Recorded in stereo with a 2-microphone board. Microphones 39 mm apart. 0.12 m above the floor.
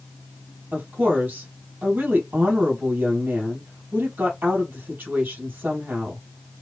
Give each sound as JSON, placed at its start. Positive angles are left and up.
{"t": 0.7, "sound": "a woman speaking", "side_deg": -55, "distance_m": 3.0}